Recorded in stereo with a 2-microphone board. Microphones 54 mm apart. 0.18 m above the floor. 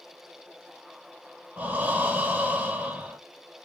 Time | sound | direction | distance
1.6 | breathing | 30° right (ahead or behind) | 1.0 m